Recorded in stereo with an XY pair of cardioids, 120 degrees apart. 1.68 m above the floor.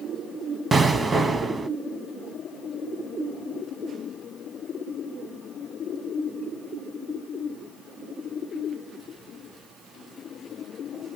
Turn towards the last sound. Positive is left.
turn(degrees=-25)